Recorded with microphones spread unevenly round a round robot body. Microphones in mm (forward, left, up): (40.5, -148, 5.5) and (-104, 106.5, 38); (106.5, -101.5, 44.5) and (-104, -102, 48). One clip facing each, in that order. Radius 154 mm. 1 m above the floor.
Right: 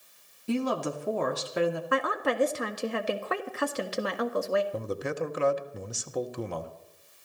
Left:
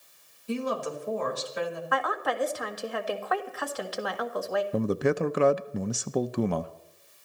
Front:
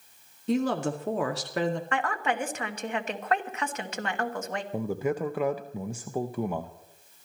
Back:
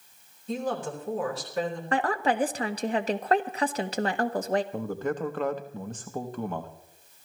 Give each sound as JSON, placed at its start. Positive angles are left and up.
{"t": 0.5, "sound": "a woman speaking", "azimuth_deg": -25, "distance_m": 2.0}
{"t": 1.9, "sound": "a woman speaking", "azimuth_deg": -120, "distance_m": 1.5}
{"t": 4.7, "sound": "a man speaking", "azimuth_deg": 80, "distance_m": 0.6}